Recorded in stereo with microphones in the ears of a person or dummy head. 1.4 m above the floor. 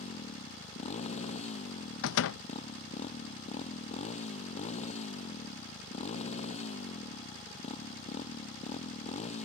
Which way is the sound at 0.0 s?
35° left (ahead or behind).